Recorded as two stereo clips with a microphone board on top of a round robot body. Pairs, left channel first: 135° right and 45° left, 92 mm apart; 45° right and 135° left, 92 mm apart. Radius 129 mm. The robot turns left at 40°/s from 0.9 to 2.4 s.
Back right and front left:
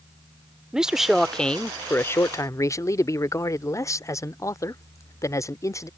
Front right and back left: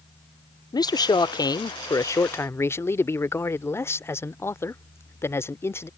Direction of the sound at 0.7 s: 35° right.